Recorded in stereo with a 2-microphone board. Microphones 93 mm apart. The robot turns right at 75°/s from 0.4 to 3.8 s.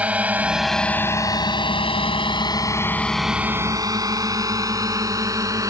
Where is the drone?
15° right (ahead or behind); by 5.7 s 35° right (ahead or behind).